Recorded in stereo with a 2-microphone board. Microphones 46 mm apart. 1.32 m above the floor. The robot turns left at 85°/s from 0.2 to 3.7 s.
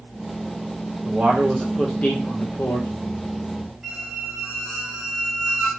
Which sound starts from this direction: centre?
A squeak, at 3.8 s.